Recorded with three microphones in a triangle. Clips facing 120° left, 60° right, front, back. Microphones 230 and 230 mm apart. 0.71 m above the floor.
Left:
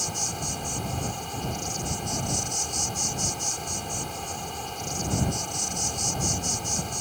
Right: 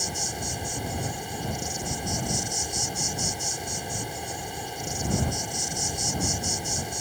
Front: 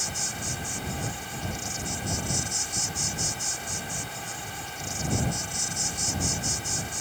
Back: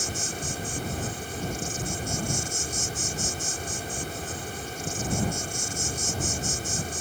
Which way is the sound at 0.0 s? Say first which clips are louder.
Right 1 dB, back 4 dB; 140° right.